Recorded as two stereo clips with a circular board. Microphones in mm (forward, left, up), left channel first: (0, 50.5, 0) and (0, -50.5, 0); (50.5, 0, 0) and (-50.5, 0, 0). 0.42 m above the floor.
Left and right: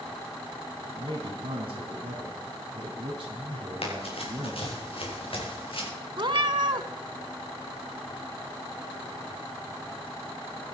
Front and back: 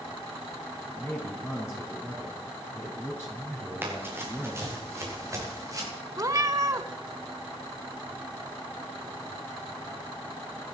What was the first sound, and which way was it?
A man speaking, 65° right.